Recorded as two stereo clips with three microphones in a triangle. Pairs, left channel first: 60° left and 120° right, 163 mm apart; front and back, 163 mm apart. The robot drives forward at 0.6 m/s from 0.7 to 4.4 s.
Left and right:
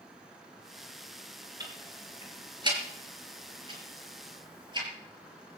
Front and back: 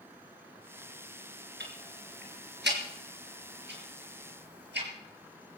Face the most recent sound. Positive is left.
turn(degrees=175)